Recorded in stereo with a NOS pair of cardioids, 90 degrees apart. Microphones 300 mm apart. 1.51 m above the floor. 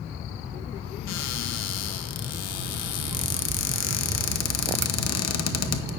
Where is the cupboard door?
60° left, 1.0 m.